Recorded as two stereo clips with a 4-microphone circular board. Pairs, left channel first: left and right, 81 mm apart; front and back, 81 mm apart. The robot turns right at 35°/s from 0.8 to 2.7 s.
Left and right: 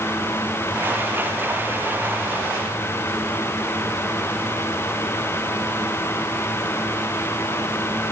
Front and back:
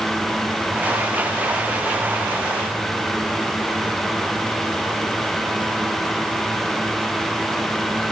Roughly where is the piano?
I don't hear a piano.